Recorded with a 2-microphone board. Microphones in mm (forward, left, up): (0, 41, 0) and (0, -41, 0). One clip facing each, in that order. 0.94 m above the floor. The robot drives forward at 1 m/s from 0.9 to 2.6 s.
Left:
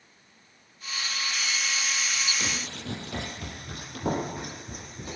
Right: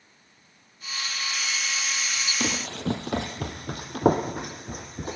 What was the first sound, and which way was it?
Running footsteps, 55° right (ahead or behind).